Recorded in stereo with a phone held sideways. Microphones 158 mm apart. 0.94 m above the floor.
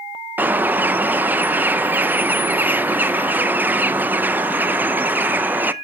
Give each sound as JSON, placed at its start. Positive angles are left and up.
{"t": 0.4, "sound": "a bird", "side_deg": -10, "distance_m": 0.6}